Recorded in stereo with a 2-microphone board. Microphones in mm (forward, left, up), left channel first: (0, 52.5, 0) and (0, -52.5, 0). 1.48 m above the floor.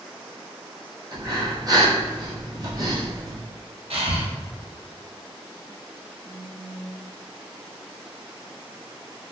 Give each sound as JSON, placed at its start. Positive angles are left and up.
{"t": 1.1, "sound": "breathing", "side_deg": -40, "distance_m": 0.7}
{"t": 3.9, "sound": "breathing", "side_deg": -70, "distance_m": 0.7}
{"t": 6.2, "sound": "a phone buzzing", "side_deg": 30, "distance_m": 0.6}